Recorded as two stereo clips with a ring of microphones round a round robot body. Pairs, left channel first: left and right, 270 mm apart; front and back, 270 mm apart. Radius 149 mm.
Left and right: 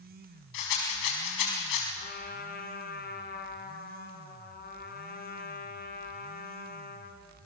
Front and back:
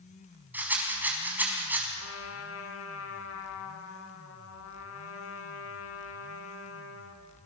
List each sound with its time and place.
0.5 s a rattle: 95° left, 6 m
1.9 s a trumpet: 35° left, 2.5 m